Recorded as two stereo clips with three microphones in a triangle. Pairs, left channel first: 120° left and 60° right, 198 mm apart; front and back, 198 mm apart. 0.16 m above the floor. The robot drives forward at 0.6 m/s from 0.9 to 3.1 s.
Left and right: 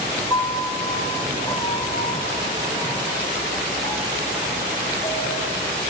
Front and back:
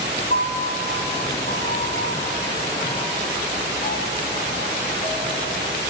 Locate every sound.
0.3 s a piano: 45° left, 5.5 m; by 5.5 s 60° left, 4.5 m